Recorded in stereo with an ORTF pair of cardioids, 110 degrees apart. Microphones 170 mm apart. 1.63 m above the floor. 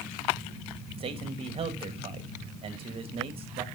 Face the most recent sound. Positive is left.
turn(degrees=-35)